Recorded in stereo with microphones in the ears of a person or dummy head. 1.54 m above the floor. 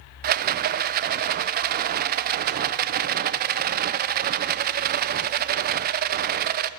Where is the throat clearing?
No throat clearing in this recording.